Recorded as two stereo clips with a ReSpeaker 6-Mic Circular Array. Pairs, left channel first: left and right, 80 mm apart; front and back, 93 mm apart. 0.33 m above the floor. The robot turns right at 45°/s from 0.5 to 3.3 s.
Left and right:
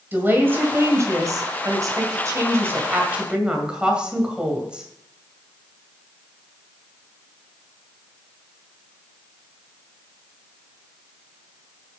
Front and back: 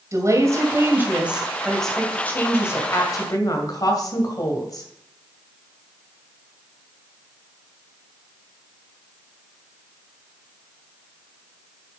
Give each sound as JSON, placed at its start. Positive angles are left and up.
{"t": 0.1, "sound": "a woman speaking", "azimuth_deg": -145, "distance_m": 2.0}